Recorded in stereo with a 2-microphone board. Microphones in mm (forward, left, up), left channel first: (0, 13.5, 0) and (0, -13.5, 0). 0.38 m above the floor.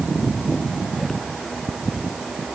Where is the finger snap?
No finger snap in this recording.